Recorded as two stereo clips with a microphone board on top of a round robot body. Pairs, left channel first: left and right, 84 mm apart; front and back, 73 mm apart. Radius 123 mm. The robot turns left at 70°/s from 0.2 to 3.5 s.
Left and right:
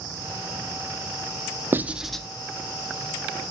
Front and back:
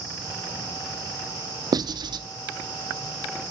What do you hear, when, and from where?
1.7 s writing: 155° right, 0.5 m; by 2.2 s 170° left, 0.5 m